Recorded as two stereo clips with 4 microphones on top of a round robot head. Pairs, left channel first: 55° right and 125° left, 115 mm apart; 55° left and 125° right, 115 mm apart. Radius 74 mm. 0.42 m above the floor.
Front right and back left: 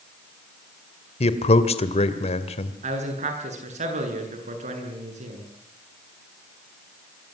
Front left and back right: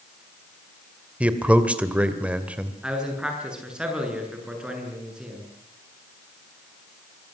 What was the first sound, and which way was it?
A man speaking, 50° right.